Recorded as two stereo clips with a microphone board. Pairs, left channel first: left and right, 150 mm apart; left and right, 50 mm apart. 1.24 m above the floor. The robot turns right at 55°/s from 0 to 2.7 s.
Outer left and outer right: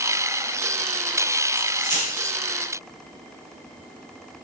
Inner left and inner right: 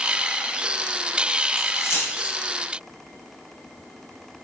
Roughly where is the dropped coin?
Left.